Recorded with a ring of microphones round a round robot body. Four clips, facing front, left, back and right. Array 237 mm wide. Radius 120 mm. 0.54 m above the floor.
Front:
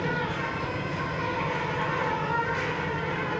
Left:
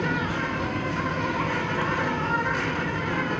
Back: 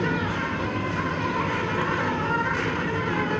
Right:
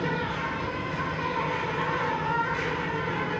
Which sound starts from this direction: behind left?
An insect, at 0.0 s.